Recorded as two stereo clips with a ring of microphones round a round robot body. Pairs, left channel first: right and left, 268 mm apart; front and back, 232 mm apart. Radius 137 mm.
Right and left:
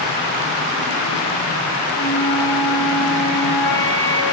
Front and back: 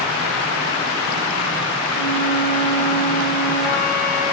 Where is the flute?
15° right, 4.5 m.